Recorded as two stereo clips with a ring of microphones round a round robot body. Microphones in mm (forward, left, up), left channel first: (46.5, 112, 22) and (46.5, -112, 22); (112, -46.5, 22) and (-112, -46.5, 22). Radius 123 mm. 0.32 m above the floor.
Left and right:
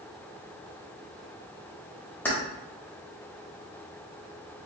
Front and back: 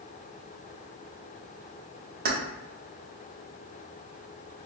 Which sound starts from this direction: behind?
Keys jangling, at 2.2 s.